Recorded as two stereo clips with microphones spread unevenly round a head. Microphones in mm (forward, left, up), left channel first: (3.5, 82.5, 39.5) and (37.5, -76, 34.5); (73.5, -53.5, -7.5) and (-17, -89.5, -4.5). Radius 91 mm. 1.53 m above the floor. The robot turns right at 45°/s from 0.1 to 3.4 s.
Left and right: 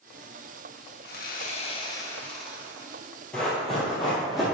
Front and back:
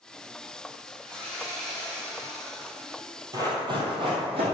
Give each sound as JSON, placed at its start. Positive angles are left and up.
{"t": 1.0, "sound": "sawing", "azimuth_deg": 130, "distance_m": 1.1}
{"t": 3.3, "sound": "running footsteps", "azimuth_deg": 180, "distance_m": 1.8}